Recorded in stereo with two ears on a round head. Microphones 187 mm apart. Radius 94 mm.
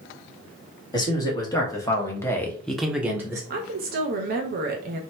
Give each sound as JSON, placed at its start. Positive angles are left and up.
{"t": 0.9, "sound": "a man speaking", "side_deg": 20, "distance_m": 1.4}
{"t": 3.5, "sound": "a woman speaking", "side_deg": -45, "distance_m": 0.7}